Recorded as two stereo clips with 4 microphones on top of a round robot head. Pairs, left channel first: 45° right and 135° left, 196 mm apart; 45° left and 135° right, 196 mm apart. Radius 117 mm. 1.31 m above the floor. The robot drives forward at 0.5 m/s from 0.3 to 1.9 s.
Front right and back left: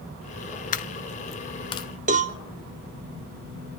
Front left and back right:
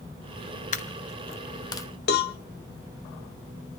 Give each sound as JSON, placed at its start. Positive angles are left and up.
{"t": 0.7, "sound": "a dropped coin", "azimuth_deg": 0, "distance_m": 1.0}
{"t": 2.1, "sound": "a cowbell", "azimuth_deg": 85, "distance_m": 1.2}